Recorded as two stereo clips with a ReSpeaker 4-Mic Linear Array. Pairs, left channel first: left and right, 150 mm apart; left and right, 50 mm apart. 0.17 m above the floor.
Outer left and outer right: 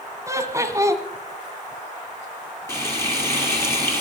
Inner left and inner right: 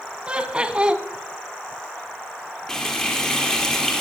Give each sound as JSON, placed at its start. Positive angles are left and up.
{"t": 0.3, "sound": "laughter", "side_deg": -20, "distance_m": 1.2}
{"t": 2.7, "sound": "frying", "side_deg": 15, "distance_m": 4.0}